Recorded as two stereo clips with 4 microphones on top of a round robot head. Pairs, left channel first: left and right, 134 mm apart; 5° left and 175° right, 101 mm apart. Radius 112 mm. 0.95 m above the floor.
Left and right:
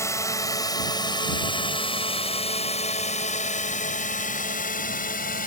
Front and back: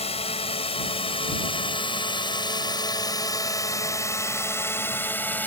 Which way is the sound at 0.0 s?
20° left.